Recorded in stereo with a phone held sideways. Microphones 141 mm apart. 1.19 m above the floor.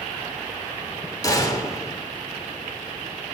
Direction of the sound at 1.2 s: 25° left (ahead or behind).